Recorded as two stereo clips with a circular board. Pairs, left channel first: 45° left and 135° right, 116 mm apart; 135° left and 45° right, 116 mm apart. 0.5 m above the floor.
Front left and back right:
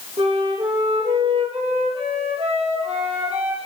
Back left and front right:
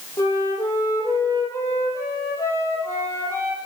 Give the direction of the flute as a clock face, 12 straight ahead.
5 o'clock.